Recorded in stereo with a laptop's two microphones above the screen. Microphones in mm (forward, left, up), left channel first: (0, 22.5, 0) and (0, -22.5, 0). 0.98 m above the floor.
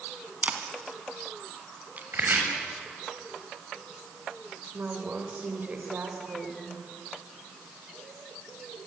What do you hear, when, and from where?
0.4 s a camera shutter: 35° right (ahead or behind), 1.8 m
2.1 s chopping: 55° right (ahead or behind), 7 m
4.7 s a woman speaking: 40° right (ahead or behind), 4.5 m